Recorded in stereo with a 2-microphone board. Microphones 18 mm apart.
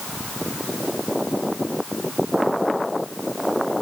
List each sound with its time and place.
Only background noise.